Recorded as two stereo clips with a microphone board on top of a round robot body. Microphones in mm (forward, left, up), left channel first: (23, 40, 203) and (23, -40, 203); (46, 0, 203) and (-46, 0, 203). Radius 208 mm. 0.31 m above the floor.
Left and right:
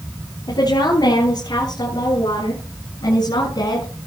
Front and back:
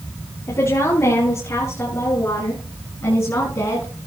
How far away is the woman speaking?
About 8 m.